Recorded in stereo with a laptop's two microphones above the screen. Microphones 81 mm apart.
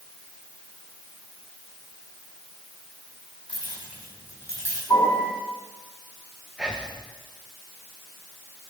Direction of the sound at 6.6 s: 10° right (ahead or behind).